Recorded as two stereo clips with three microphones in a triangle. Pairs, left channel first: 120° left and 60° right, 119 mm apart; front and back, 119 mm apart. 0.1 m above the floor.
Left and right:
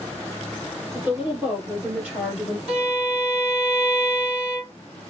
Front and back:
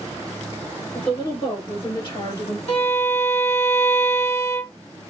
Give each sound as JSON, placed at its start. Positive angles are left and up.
{"t": 0.9, "sound": "a woman speaking", "azimuth_deg": 15, "distance_m": 1.9}
{"t": 2.7, "sound": "a violin", "azimuth_deg": 20, "distance_m": 1.5}